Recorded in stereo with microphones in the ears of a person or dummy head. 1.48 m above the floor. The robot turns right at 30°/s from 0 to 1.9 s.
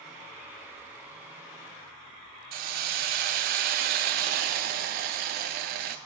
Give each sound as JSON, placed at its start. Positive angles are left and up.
{"t": 2.5, "sound": "a hiss", "side_deg": -45, "distance_m": 0.8}